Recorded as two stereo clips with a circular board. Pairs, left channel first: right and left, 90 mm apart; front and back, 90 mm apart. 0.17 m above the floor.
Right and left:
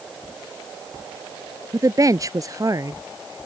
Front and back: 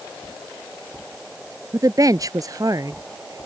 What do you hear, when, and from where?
1.7 s a woman speaking: 135° left